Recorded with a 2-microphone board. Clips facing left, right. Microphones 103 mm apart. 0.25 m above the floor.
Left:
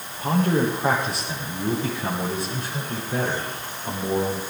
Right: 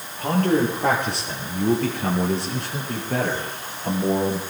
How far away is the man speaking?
About 6.5 m.